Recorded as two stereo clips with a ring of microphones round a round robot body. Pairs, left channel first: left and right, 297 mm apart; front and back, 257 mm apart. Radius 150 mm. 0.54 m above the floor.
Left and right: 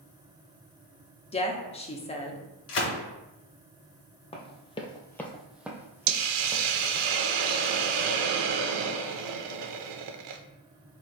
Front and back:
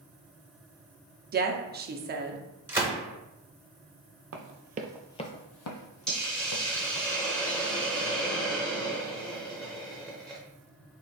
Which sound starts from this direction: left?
A gunshot, at 2.7 s.